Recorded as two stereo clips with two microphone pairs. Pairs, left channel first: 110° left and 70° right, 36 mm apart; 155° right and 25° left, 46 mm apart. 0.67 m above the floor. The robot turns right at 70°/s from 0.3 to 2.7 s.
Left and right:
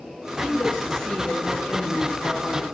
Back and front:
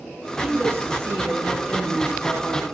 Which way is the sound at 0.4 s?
5° right.